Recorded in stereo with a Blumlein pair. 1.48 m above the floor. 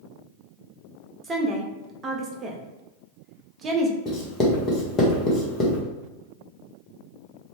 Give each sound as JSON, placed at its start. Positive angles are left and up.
{"t": 1.2, "sound": "a woman speaking", "azimuth_deg": -20, "distance_m": 0.6}
{"t": 4.0, "sound": "writing", "azimuth_deg": 25, "distance_m": 0.9}